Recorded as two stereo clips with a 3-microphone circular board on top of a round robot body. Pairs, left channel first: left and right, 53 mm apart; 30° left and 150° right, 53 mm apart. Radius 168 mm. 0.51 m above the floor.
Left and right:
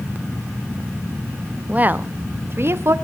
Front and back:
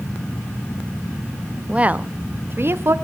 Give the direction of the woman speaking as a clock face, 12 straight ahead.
3 o'clock.